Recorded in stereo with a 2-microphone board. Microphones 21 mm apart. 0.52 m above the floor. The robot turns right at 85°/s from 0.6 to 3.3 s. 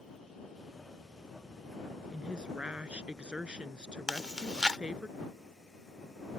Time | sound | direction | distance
2.1 | a woman speaking | 155° right | ?
4.1 | chewing | 40° right (ahead or behind) | ?